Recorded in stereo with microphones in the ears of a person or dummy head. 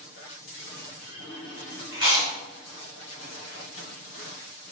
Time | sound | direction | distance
1.9 | chewing | 25° right (ahead or behind) | 2 m